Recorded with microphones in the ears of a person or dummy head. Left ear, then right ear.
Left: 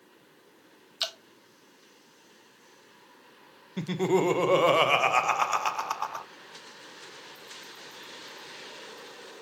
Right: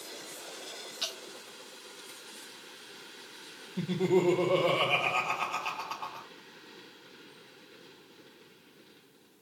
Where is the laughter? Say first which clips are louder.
Left 2 dB; 55° left (ahead or behind), 0.6 m.